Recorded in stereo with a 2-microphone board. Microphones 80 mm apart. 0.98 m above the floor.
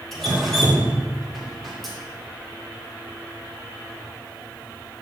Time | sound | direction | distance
0.1 | dripping | centre (ahead or behind) | 2.5 m